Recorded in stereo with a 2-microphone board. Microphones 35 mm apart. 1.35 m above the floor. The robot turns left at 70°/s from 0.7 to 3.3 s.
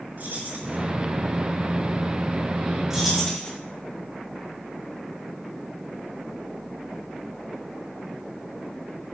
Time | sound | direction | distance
0.2 | keys jangling | 65° right (ahead or behind) | 5 m
2.9 | keys jangling | 10° right (ahead or behind) | 3 m